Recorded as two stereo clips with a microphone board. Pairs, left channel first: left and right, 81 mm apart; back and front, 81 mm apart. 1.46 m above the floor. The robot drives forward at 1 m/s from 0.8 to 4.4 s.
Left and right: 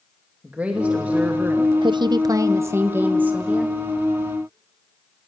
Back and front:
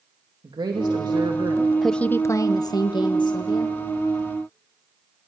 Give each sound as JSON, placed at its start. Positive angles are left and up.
{"t": 0.4, "sound": "a woman speaking", "azimuth_deg": -20, "distance_m": 2.5}
{"t": 1.8, "sound": "a woman speaking", "azimuth_deg": -90, "distance_m": 0.6}